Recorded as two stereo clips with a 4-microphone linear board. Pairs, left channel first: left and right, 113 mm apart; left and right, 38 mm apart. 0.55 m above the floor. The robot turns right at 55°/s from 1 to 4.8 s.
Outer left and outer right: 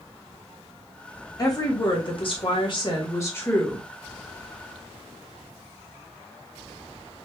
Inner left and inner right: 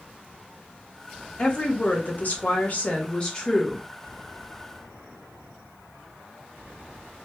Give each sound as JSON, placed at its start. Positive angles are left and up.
{"t": 1.4, "sound": "a woman speaking", "azimuth_deg": 45, "distance_m": 1.7}